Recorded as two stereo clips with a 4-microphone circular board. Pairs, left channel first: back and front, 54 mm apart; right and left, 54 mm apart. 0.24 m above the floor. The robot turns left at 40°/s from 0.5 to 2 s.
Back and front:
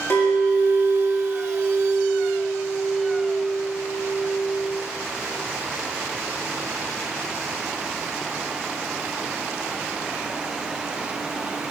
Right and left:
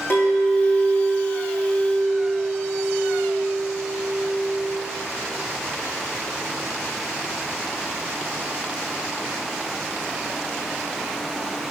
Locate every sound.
0.1 s a clink: 140° right, 6.5 m; by 4.8 s 160° left, 6.5 m